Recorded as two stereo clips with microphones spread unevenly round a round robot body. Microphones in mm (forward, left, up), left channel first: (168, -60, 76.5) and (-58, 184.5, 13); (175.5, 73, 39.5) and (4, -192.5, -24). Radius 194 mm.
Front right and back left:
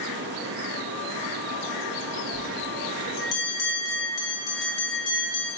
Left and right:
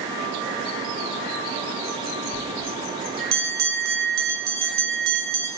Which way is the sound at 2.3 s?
80° right.